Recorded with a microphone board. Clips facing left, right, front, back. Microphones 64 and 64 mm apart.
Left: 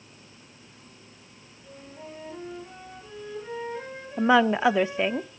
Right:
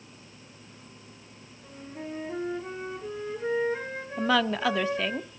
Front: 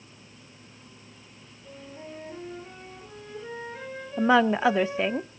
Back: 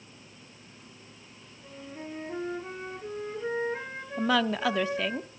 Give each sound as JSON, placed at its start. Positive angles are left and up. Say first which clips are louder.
{"t": 1.6, "sound": "a flute", "louder": "right 4 dB, back 1 dB", "azimuth_deg": -140, "distance_m": 6.5}
{"t": 4.2, "sound": "a woman speaking", "louder": "left 5 dB, front 6 dB", "azimuth_deg": 40, "distance_m": 0.7}